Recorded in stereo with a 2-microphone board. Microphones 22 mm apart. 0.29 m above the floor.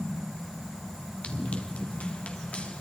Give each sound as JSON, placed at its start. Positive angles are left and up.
{"t": 1.2, "sound": "running footsteps", "side_deg": 85, "distance_m": 3.5}